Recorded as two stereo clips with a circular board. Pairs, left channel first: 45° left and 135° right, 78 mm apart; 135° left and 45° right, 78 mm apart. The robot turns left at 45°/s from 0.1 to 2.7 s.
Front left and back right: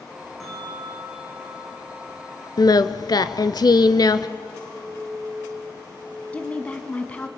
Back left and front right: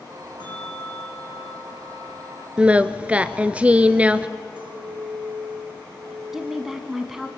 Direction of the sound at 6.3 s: 30° left.